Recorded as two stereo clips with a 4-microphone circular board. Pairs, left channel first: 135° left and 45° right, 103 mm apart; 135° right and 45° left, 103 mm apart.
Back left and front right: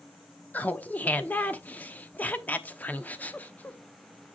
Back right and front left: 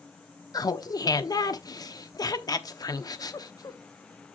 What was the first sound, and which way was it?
Laughter, 160° right.